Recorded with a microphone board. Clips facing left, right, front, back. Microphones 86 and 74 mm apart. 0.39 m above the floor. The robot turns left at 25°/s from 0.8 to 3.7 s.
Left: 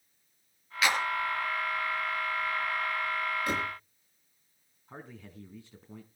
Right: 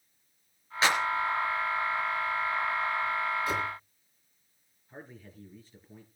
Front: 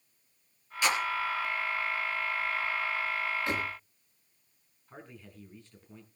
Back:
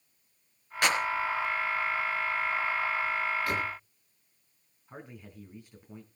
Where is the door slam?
65° left, 5 m; by 3.7 s 60° left, 5 m.